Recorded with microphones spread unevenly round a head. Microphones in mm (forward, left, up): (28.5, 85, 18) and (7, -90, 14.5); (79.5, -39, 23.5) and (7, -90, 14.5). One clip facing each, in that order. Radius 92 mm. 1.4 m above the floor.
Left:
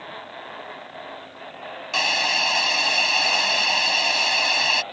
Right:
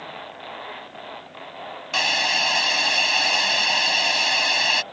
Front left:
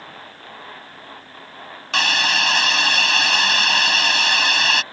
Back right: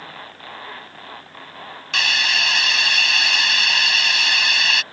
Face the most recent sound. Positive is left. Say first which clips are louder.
# even, front left 3 dB
turn(degrees=-10)